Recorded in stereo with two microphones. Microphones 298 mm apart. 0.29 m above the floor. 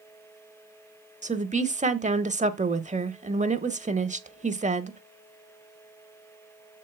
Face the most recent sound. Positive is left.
turn(degrees=-25)  # may be behind; listen again after turning